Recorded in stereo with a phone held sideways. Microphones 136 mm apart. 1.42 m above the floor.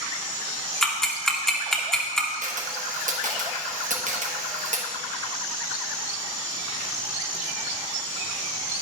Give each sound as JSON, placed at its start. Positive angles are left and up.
{"t": 0.8, "sound": "ticking", "side_deg": 5, "distance_m": 0.9}
{"t": 2.4, "sound": "a camera shutter", "side_deg": -70, "distance_m": 1.1}